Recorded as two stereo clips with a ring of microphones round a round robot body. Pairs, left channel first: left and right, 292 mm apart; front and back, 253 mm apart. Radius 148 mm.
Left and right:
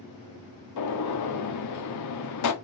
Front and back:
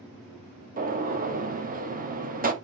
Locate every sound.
0.8 s a gunshot: 120° left, 1.6 m